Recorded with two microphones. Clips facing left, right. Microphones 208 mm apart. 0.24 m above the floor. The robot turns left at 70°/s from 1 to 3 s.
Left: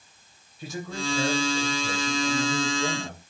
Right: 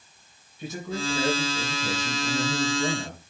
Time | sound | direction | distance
0.6 | a man speaking | 25° right | 3.5 m